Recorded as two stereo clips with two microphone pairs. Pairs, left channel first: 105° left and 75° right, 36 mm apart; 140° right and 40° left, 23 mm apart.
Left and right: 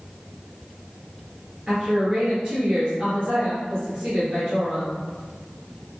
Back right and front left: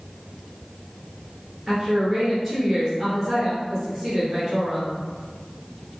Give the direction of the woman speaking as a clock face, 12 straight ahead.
12 o'clock.